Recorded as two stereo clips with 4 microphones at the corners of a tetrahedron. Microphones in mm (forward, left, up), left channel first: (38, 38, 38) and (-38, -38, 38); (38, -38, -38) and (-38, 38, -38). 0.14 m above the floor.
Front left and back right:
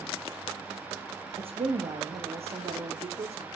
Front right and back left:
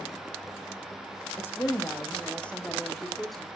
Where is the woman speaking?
110° right, 5 m; by 3.5 s 135° right, 4.5 m.